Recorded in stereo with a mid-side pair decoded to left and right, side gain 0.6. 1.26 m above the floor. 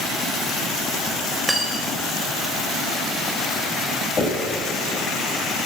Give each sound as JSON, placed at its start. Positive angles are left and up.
{"t": 1.5, "sound": "cutlery clinking", "azimuth_deg": -15, "distance_m": 3.5}
{"t": 4.2, "sound": "knocking", "azimuth_deg": 30, "distance_m": 6.5}